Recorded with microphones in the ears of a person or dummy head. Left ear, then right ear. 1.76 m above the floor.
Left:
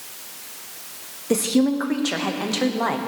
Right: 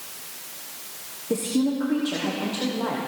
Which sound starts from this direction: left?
A woman speaking, at 1.3 s.